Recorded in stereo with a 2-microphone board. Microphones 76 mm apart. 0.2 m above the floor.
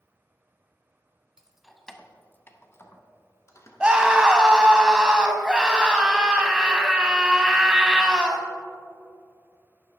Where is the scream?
10° right (ahead or behind), 1.0 m.